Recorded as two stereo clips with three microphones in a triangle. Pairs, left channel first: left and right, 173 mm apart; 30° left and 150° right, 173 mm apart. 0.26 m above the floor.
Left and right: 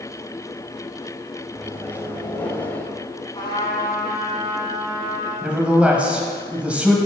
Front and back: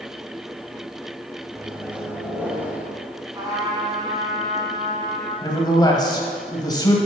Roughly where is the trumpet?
Behind left.